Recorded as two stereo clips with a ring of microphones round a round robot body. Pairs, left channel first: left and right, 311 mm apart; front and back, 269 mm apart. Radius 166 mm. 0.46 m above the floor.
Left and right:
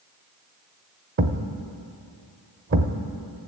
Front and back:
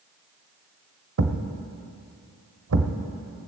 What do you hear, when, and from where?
1.2 s a thud: 140° right, 1.0 m